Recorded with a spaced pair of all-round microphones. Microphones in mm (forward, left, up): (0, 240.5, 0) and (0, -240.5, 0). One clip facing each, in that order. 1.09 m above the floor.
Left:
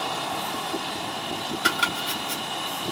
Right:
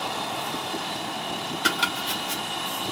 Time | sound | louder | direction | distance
1.6 | chopping | even | 15° right (ahead or behind) | 0.8 m